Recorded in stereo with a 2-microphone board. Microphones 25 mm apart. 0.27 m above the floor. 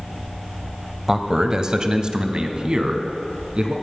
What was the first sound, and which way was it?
A man speaking, 20° right (ahead or behind).